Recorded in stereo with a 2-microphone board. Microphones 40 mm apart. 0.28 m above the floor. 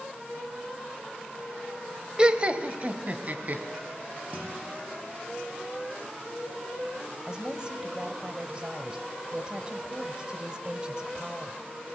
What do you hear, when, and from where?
2.2 s laughter: 20° right (ahead or behind), 0.9 m; by 3.6 s 45° right (ahead or behind), 2.0 m
4.3 s a guitar: 40° right (ahead or behind), 7.5 m
7.3 s a woman speaking: 20° right (ahead or behind), 1.2 m